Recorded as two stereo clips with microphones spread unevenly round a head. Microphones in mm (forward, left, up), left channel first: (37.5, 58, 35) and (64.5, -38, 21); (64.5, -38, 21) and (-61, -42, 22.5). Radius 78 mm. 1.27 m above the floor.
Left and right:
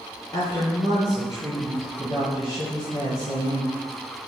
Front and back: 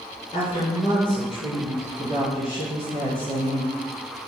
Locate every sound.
0.3 s a woman speaking: 65° left, 1.1 m; by 3.8 s 60° left, 3 m